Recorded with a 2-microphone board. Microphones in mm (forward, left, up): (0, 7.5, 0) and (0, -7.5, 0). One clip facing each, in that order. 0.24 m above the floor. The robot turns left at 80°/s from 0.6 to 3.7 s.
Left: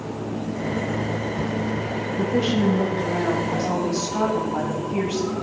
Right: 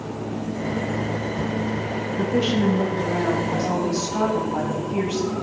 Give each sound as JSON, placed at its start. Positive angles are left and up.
{"t": 2.2, "sound": "a woman speaking", "azimuth_deg": -125, "distance_m": 1.7}